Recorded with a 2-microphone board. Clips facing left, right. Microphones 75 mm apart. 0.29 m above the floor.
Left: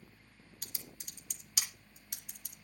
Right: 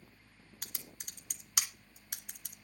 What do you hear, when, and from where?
0.6 s typing on a keyboard: 65° right (ahead or behind), 2 m